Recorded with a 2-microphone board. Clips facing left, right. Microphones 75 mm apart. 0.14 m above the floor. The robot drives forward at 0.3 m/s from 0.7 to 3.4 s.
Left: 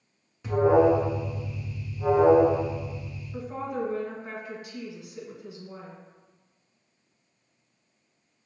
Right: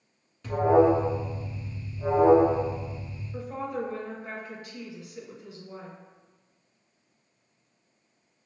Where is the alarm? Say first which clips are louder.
Left 1 dB; 15° left (ahead or behind), 1.1 m; by 3.2 s 10° left (ahead or behind), 1.5 m.